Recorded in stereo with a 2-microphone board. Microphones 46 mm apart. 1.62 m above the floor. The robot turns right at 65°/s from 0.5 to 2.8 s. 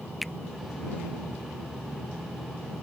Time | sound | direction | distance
0.2 | a finger snap | centre (ahead or behind) | ?